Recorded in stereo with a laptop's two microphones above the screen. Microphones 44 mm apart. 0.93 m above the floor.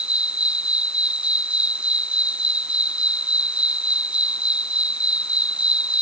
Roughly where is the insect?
Right.